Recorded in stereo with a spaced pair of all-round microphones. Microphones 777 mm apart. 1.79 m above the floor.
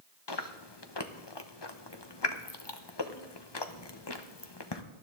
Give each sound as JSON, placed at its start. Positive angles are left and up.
{"t": 0.3, "sound": "chewing", "side_deg": 35, "distance_m": 1.0}